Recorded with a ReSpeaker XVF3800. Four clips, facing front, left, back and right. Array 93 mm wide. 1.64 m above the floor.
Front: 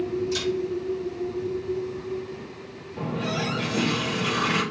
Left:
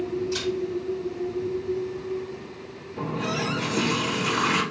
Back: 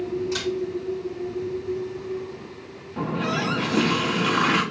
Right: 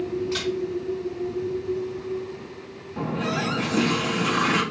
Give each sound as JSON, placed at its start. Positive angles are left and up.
{"t": 0.3, "sound": "a camera shutter", "azimuth_deg": -120, "distance_m": 5.0}
{"t": 3.0, "sound": "a running tap", "azimuth_deg": -150, "distance_m": 1.9}